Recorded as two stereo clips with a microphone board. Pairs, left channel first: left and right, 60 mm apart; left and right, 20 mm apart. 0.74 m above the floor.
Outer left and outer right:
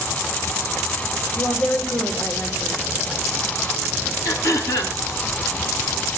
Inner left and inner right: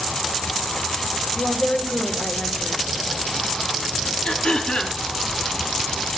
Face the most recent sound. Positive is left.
turn(degrees=65)  # may be behind; listen again after turning